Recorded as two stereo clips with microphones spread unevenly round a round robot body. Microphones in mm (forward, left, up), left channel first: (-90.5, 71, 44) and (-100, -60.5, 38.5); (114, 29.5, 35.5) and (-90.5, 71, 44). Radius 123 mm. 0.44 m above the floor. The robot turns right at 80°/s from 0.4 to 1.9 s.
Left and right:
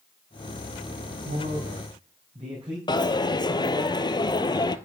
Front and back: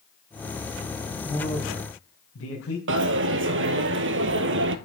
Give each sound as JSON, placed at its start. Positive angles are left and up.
{"t": 1.2, "sound": "a man speaking", "azimuth_deg": -90, "distance_m": 3.5}
{"t": 2.9, "sound": "a dropped coin", "azimuth_deg": 145, "distance_m": 1.2}